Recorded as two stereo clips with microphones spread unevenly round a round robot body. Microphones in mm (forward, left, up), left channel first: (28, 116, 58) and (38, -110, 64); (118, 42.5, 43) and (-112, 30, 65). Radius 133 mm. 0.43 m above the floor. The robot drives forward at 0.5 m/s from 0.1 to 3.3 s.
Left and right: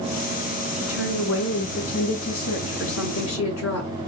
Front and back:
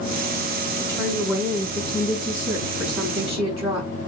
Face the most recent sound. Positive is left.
turn(degrees=110)